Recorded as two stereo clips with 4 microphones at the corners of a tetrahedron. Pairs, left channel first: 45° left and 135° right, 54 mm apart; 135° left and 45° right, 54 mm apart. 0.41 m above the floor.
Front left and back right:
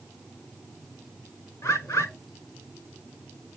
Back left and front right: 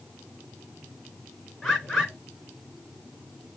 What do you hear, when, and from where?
1.6 s a bird: 45° left, 4 m